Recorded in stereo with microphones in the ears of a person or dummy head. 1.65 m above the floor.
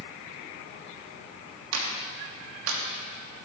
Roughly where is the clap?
Right.